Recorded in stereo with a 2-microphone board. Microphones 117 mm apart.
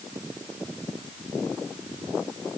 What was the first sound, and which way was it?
Only background noise.